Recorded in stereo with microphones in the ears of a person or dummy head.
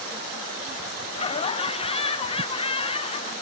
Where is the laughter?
25° left (ahead or behind), 0.9 m.